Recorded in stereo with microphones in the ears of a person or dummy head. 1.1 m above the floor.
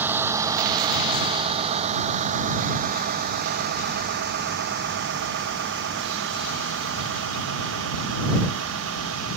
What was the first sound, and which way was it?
A vehicle, 10° right (ahead or behind).